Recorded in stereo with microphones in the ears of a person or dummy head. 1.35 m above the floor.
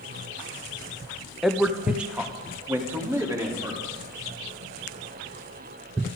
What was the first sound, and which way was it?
A man speaking, centre (ahead or behind).